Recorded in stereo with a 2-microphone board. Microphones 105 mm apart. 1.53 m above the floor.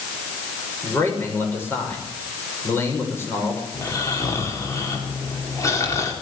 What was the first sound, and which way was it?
A man speaking, 20° left (ahead or behind).